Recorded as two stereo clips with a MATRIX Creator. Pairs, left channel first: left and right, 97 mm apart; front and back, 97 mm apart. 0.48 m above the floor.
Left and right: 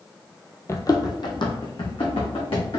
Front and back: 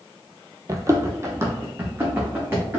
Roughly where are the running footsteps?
Behind left.